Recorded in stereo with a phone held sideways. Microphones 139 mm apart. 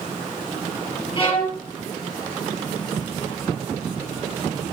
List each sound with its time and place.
1.2 s a violin: 35° left (ahead or behind), 5.5 m